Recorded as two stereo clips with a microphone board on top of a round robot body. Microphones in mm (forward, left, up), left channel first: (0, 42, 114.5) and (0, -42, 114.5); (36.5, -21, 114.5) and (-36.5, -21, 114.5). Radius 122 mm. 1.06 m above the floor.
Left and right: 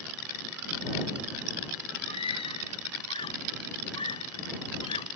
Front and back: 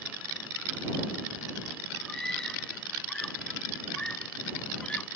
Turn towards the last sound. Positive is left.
turn(degrees=75)